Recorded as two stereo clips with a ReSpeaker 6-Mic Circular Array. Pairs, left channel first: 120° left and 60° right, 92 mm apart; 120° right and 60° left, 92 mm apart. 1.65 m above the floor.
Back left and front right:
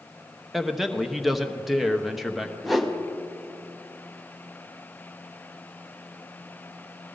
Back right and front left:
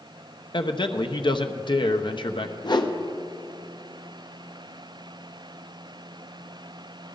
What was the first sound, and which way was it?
A man speaking, 150° right.